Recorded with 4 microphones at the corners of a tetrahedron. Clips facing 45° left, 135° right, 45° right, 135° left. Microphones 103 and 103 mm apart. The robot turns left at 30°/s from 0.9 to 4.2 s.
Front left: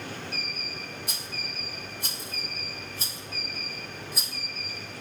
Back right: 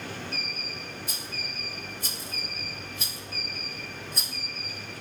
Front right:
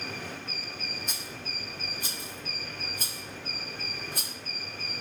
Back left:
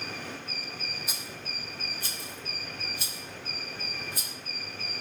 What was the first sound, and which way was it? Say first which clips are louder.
A rattle: even, front right 1 dB; 55° left.